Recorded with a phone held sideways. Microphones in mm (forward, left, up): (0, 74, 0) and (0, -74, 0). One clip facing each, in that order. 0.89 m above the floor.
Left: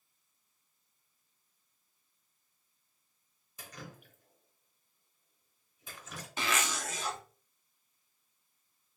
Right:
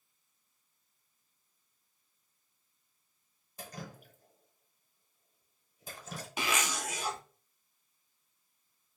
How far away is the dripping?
About 0.8 m.